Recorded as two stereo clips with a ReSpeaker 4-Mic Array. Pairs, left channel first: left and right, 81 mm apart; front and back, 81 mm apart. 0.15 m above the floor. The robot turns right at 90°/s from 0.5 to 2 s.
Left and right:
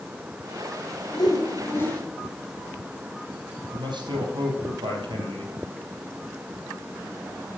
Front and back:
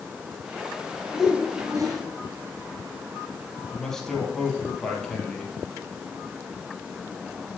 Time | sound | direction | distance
1.1 | a whoosh | 85° left | 2.5 m
3.7 | a man speaking | 85° right | 4 m